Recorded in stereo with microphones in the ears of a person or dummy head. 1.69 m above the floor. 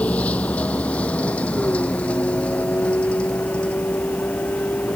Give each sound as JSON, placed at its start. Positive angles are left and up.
{"t": 0.0, "sound": "a vehicle", "side_deg": 5}